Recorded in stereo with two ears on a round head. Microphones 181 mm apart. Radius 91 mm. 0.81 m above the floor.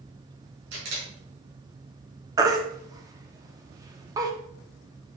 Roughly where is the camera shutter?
Right.